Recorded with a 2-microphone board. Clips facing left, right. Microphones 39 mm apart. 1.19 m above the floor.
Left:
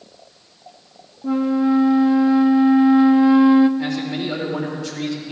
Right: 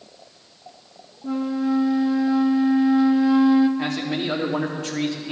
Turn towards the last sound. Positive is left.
turn(degrees=-55)  # may be behind; listen again after turning